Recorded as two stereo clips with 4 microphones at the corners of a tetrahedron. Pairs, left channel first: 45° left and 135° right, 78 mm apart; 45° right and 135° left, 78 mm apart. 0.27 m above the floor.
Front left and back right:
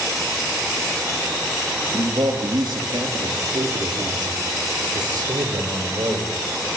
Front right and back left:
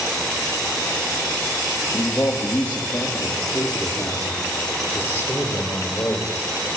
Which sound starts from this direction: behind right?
A man speaking, at 1.9 s.